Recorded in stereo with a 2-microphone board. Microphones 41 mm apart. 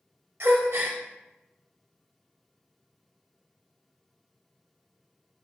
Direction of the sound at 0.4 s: 70° right (ahead or behind).